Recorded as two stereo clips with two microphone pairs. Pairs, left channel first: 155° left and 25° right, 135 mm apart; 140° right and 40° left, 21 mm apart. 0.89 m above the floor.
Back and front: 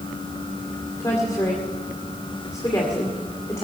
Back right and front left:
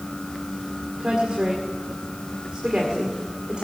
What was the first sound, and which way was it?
A woman speaking, 90° left.